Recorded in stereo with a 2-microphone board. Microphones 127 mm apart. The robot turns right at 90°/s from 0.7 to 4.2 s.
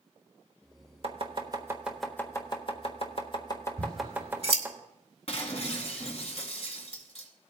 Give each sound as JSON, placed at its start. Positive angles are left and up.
{"t": 1.0, "sound": "chopping", "side_deg": -50, "distance_m": 1.3}
{"t": 3.8, "sound": "scissors", "side_deg": -25, "distance_m": 2.5}
{"t": 5.3, "sound": "breaking glass", "side_deg": 50, "distance_m": 2.0}